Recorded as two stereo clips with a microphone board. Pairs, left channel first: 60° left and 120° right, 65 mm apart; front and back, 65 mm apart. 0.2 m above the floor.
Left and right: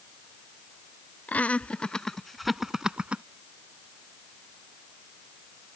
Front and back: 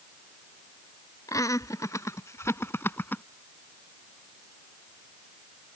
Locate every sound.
1.3 s laughter: straight ahead; by 3.2 s 55° right